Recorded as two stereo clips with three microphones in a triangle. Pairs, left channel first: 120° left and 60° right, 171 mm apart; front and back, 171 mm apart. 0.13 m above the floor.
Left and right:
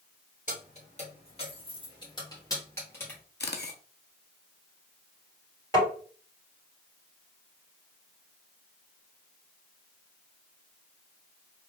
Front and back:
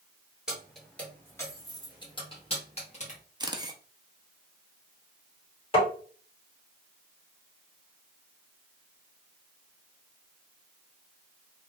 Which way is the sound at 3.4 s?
115° left.